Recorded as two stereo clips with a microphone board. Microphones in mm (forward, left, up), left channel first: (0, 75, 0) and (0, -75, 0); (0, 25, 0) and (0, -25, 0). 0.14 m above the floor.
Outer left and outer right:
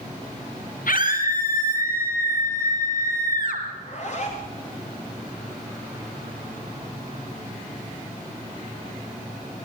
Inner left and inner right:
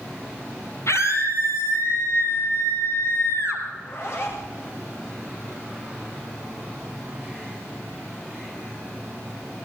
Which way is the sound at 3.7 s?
50° left (ahead or behind).